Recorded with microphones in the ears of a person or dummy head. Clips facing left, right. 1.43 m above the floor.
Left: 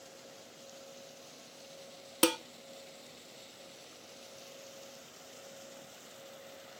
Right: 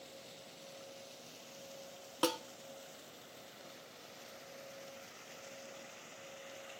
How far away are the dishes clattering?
About 0.5 m.